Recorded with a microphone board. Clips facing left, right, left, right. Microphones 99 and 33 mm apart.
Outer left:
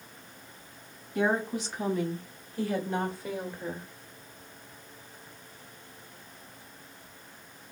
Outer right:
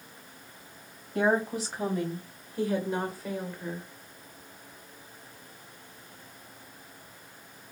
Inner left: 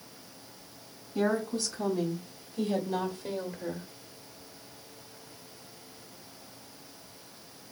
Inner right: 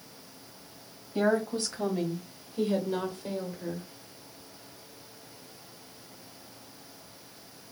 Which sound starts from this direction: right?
A woman speaking, at 1.1 s.